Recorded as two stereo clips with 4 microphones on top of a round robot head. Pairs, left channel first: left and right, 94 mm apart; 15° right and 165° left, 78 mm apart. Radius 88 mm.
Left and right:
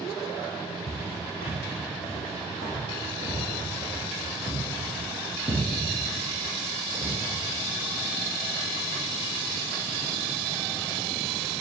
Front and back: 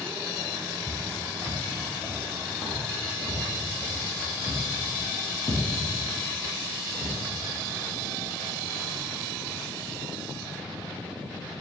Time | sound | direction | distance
0.9 | footsteps | 55° left | 2 m